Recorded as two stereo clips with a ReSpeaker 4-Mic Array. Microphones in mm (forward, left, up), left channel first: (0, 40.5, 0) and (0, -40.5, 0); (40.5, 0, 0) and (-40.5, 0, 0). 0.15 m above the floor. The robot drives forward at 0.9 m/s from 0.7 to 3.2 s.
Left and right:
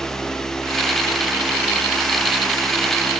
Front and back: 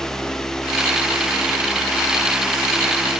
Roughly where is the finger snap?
No finger snap in this recording.